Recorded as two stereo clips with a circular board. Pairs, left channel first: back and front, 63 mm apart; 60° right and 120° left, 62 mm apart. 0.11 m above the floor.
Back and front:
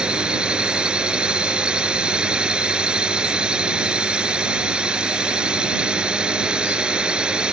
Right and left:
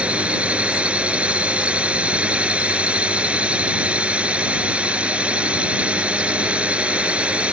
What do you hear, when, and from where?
0.0 s a drone: 65° left